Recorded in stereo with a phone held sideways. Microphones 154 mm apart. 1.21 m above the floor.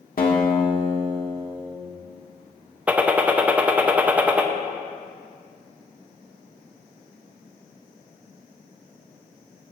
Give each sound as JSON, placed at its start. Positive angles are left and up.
{"t": 0.2, "sound": "a guitar", "side_deg": 65, "distance_m": 1.3}
{"t": 2.9, "sound": "a gunshot", "side_deg": -10, "distance_m": 0.6}